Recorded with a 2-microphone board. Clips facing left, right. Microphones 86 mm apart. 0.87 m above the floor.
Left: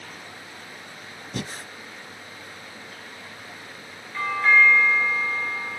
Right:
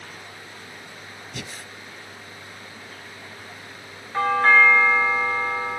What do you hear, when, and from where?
1.3 s breathing: 40° left (ahead or behind), 0.9 m
4.1 s a doorbell: 50° right (ahead or behind), 1.3 m